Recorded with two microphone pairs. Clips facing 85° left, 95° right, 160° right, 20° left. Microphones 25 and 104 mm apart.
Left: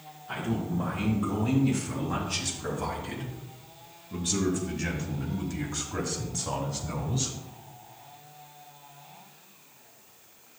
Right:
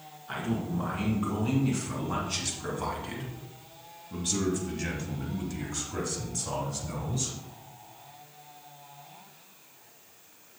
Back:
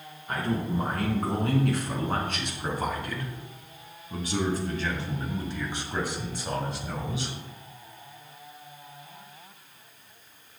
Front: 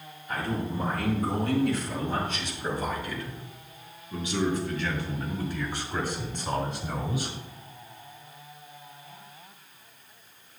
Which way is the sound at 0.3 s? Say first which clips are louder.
Left 1 dB, back 2 dB; 175° right.